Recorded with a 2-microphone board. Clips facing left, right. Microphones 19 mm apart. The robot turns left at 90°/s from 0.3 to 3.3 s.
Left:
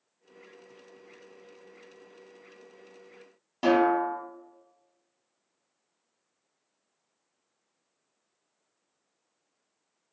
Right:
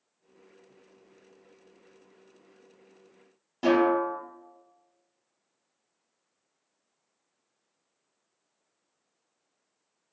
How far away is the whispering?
No whispering in this recording.